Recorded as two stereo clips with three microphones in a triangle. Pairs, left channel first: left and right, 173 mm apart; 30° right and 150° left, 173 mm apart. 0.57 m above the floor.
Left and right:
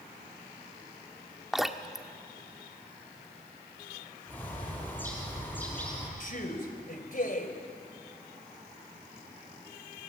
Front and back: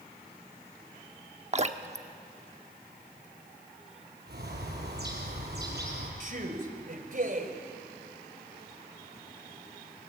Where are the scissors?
I don't hear scissors.